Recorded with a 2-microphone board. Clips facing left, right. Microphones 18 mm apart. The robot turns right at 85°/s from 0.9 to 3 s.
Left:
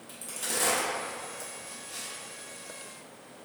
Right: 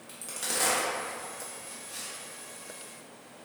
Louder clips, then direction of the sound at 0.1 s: Even; 15° right (ahead or behind).